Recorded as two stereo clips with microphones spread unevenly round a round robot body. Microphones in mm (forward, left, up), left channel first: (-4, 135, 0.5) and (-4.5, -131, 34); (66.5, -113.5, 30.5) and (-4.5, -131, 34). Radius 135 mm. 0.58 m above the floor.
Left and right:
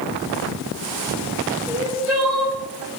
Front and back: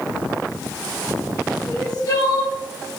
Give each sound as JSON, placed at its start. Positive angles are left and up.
{"t": 1.7, "sound": "crying", "azimuth_deg": 0, "distance_m": 1.7}